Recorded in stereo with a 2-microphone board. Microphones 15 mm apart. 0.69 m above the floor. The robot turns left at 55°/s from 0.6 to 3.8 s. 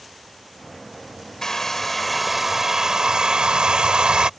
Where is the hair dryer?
45° left; by 4.3 s 85° right.